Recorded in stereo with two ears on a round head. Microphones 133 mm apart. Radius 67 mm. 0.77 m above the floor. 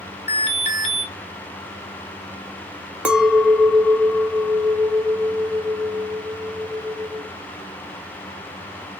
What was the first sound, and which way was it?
An alarm, 45° left (ahead or behind).